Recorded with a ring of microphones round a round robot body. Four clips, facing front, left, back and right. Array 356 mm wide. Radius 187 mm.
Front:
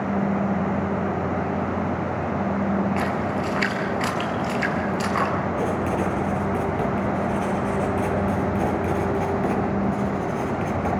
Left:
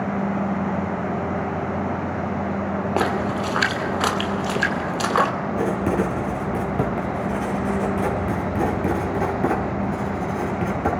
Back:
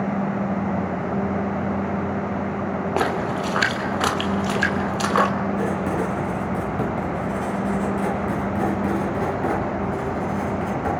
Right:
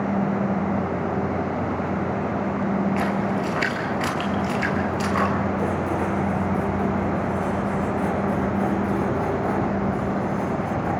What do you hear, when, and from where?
3.0 s a splash: 135° left, 2.5 m
5.6 s writing: 100° left, 5.5 m